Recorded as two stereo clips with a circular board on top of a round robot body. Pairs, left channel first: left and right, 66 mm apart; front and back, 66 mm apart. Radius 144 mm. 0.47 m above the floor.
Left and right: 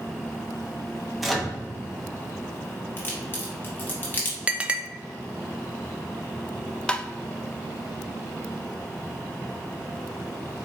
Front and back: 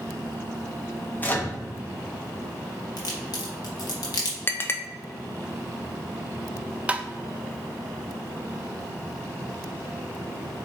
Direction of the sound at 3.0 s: 30° left.